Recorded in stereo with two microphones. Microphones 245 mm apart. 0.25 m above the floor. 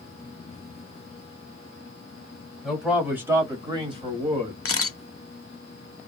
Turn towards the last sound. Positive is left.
turn(degrees=60)  # may be behind; listen again after turning